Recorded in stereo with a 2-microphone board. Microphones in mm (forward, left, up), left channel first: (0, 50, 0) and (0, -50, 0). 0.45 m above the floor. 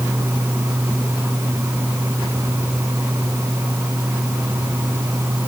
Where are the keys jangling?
I don't hear keys jangling.